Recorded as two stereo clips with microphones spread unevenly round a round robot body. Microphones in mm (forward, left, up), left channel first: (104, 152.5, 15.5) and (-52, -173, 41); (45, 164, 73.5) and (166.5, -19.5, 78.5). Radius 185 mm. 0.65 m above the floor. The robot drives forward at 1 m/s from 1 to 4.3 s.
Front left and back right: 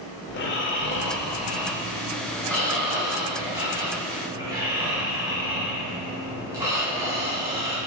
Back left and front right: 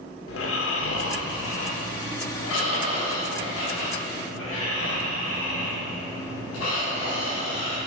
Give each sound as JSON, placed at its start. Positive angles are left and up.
{"t": 0.3, "sound": "snoring", "azimuth_deg": 120, "distance_m": 1.6}